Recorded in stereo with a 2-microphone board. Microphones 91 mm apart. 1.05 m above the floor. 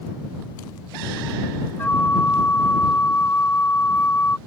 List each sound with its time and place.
1.8 s a flute: 20° left (ahead or behind)